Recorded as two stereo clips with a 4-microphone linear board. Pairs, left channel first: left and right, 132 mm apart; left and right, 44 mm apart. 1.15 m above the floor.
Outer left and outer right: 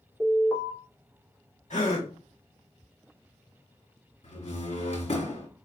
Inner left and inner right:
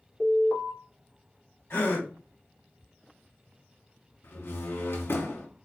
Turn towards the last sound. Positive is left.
turn(degrees=60)  # may be behind; listen again after turning